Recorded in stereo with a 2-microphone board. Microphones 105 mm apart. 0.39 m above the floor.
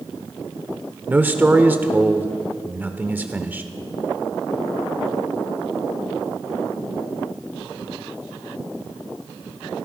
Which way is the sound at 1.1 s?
15° right (ahead or behind).